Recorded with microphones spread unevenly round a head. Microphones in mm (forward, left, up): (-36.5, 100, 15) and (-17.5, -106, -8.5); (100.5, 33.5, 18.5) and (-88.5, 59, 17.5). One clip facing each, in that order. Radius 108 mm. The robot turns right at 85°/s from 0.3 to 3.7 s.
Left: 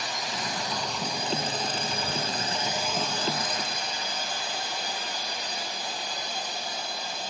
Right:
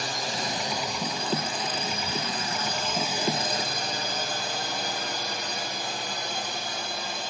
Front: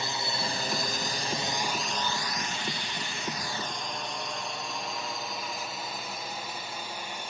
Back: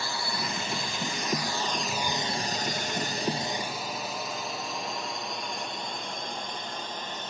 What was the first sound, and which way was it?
A drone, 65° right.